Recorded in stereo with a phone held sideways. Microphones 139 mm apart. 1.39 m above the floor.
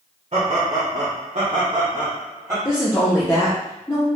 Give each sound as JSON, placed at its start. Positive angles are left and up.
{"t": 0.3, "sound": "laughter", "side_deg": -50, "distance_m": 1.0}
{"t": 2.6, "sound": "a woman speaking", "side_deg": 15, "distance_m": 0.7}